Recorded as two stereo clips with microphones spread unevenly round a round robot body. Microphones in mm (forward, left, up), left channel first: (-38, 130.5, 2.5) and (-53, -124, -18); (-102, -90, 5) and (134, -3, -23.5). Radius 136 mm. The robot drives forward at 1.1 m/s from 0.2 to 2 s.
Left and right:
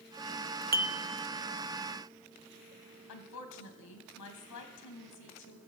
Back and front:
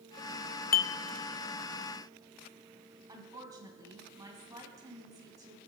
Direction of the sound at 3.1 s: 95° left.